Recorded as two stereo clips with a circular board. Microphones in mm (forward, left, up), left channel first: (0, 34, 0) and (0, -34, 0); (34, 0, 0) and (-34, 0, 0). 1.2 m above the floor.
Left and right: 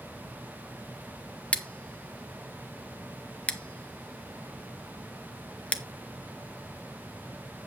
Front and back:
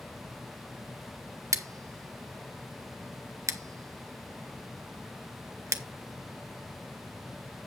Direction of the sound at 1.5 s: 160° left.